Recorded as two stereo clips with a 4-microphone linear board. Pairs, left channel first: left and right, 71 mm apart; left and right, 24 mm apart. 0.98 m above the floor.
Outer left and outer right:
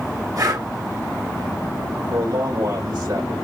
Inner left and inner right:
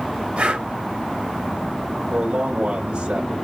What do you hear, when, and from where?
0.4 s breathing: 60° right (ahead or behind), 4.5 m
2.1 s a man speaking: 70° right (ahead or behind), 4.5 m